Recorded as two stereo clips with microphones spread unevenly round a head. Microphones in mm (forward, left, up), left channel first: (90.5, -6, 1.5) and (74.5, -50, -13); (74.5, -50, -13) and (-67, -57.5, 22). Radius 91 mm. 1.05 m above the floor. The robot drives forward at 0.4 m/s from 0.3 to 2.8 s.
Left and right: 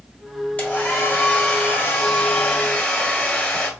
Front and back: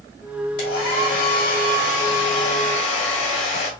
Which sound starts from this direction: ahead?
A hair dryer, at 0.6 s.